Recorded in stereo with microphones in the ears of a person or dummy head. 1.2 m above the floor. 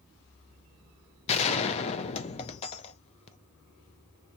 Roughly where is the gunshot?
Left.